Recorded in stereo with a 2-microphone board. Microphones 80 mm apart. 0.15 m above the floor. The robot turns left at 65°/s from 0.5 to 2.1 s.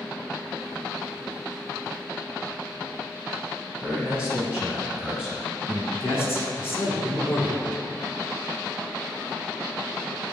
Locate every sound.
3.8 s a man speaking: 5° right (ahead or behind), 1.6 m
5.9 s a man speaking: 30° left (ahead or behind), 1.4 m